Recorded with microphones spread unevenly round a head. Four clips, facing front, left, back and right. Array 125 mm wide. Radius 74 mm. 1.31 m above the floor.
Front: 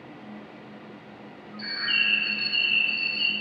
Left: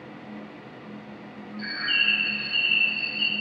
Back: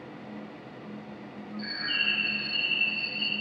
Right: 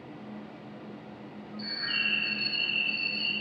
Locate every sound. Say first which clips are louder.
1.6 s a bird: left 7 dB, front 4 dB; 60° left, 0.8 m